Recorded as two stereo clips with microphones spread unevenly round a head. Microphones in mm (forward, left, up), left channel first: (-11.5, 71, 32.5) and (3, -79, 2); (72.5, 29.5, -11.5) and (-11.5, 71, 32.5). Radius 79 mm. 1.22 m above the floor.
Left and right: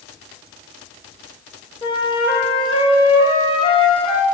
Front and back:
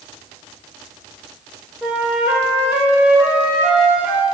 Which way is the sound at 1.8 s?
120° left.